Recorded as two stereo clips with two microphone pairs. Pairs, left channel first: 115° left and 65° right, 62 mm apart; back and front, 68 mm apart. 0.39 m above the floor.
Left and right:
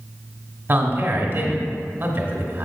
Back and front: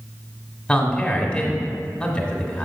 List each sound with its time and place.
0.7 s a man speaking: 110° right, 1.2 m